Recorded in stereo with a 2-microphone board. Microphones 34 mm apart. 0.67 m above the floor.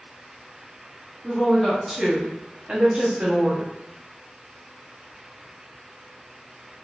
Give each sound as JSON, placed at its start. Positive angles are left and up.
{"t": 1.2, "sound": "a woman speaking", "side_deg": 10, "distance_m": 1.2}